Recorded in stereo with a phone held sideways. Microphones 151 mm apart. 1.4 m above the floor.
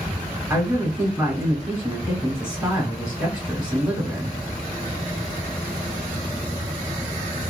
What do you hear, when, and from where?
0.5 s a man speaking: 30° right (ahead or behind), 2 m